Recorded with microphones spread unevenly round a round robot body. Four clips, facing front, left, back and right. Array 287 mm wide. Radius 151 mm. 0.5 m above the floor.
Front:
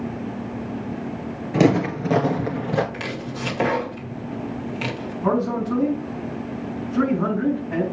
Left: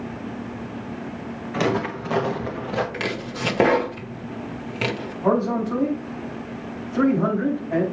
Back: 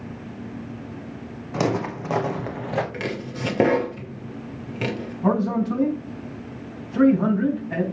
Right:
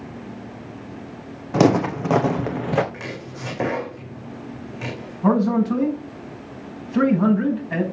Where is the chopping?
135° left, 1.8 m.